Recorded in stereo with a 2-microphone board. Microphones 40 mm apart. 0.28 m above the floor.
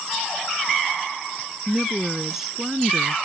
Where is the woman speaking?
5° right (ahead or behind).